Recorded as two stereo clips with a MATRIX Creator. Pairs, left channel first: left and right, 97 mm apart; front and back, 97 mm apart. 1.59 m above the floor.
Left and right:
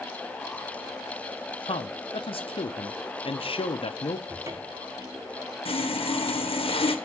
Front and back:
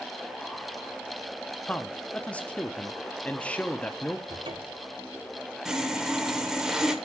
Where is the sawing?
95° left, 1.0 m.